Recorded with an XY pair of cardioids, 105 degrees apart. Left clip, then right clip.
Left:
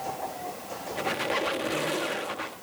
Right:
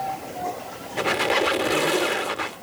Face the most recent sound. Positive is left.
turn(degrees=-45)